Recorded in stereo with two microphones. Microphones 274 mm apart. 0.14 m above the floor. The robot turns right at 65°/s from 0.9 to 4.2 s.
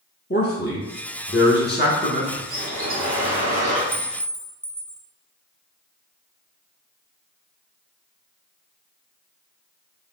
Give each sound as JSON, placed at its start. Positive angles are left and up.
{"t": 0.3, "sound": "a man speaking", "azimuth_deg": 60, "distance_m": 1.6}
{"t": 2.5, "sound": "a bird", "azimuth_deg": -145, "distance_m": 1.7}
{"t": 3.9, "sound": "a clink", "side_deg": 0, "distance_m": 0.6}